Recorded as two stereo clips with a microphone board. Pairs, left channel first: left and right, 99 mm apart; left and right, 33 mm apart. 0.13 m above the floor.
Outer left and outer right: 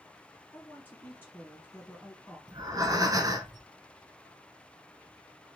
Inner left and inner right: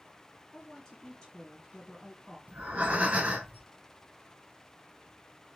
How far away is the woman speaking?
About 1.5 m.